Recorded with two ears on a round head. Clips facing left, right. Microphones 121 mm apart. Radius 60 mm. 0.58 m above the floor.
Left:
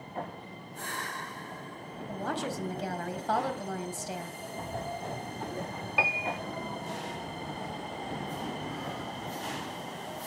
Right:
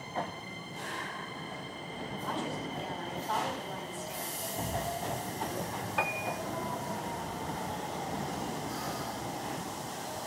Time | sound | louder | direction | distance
2.1 | a woman speaking | left 3 dB | 75° left (ahead or behind) | 4.5 m
4.6 | an explosion | right 2 dB | 20° right (ahead or behind) | 1.4 m
6.0 | a piano | left 2 dB | 15° left (ahead or behind) | 1.2 m